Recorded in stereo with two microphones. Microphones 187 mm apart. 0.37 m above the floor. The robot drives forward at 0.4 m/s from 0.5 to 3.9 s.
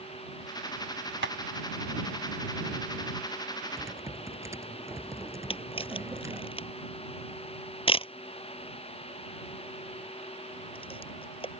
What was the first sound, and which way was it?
Tapping, 75° right (ahead or behind).